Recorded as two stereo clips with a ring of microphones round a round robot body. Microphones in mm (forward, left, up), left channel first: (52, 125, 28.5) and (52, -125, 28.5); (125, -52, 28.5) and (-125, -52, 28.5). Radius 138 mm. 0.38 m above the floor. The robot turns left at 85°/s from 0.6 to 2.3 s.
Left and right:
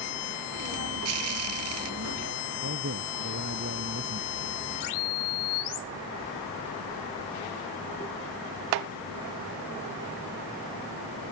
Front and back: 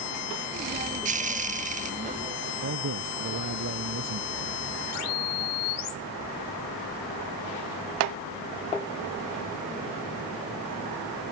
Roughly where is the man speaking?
Behind right.